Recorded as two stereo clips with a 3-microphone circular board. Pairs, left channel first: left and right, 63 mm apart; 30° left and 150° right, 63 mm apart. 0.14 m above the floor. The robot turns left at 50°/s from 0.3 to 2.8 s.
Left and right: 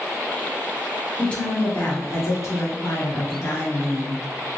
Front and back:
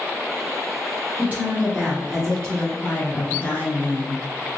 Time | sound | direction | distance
1.2 | a woman speaking | 160° left | 2 m